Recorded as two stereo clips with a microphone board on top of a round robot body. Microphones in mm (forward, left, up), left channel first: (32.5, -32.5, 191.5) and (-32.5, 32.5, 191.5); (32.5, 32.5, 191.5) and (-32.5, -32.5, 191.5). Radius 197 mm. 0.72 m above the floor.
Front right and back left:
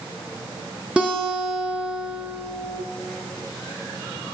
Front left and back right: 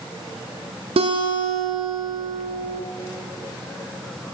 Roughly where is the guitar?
Behind right.